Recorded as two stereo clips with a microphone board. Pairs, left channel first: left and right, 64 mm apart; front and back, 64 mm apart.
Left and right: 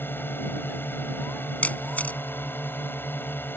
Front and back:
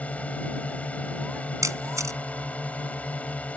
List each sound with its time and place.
0.0 s a drone: 55° left
1.6 s a camera shutter: 155° left